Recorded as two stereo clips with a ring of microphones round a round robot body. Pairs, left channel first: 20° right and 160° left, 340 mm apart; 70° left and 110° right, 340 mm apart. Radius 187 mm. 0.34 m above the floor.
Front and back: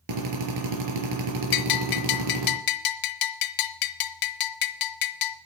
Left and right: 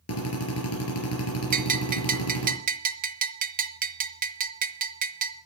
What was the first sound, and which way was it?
A drill, 120° left.